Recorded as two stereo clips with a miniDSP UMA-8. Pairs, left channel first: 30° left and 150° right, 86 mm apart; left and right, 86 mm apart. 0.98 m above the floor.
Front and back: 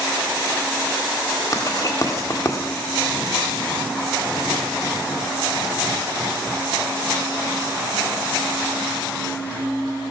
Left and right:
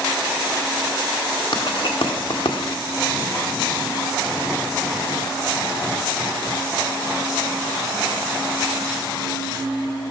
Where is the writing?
80° left, 1.9 m.